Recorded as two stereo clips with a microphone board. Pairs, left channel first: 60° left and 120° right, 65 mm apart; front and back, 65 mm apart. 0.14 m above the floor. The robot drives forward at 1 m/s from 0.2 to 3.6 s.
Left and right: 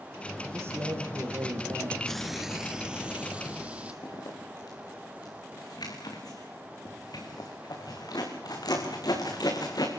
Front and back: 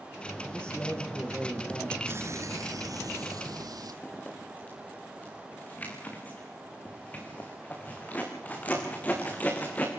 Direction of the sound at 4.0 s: 65° left.